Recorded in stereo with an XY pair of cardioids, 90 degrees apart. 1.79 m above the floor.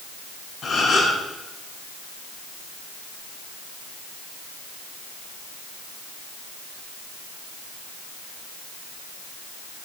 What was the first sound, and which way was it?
A gasp, 60° left.